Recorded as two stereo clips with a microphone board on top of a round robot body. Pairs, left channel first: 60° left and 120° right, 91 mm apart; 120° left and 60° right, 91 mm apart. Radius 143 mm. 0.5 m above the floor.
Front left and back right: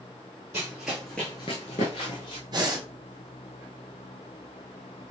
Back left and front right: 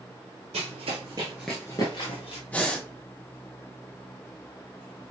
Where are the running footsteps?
50° right, 0.8 m; by 2.4 s 95° left, 0.9 m.